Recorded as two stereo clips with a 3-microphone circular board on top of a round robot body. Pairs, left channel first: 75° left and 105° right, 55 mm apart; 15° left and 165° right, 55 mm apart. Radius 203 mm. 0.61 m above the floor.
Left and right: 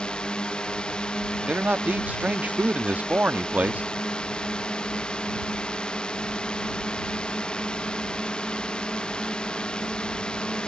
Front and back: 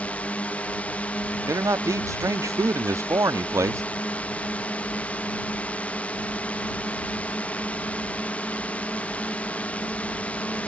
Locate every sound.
0.0 s a drone: 25° left
1.5 s a man speaking: 165° right